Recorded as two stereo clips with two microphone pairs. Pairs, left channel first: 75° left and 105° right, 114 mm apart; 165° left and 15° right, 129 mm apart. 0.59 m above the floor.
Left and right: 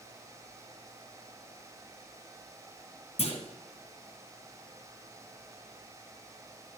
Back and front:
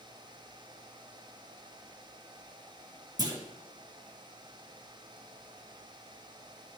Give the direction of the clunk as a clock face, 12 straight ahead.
10 o'clock.